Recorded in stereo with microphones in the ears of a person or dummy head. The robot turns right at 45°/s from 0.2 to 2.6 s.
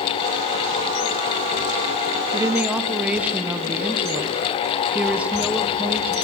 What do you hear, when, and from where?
2.3 s a woman speaking: 25° right (ahead or behind), 0.9 m; by 6.2 s 10° right (ahead or behind), 0.9 m